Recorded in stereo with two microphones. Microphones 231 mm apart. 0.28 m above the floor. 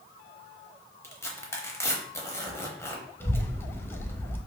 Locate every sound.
1.0 s tearing paper: 10° left (ahead or behind), 0.7 m
3.2 s a child speaking: 10° left (ahead or behind), 0.5 m